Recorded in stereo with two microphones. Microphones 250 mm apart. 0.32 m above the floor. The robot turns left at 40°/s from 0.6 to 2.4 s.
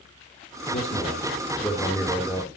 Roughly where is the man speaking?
Left.